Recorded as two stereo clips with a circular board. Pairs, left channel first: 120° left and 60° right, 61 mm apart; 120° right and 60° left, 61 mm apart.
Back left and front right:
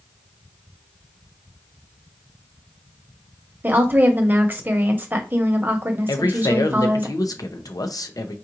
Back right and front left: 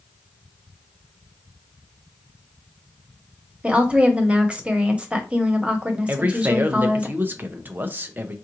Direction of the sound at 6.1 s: 120° left.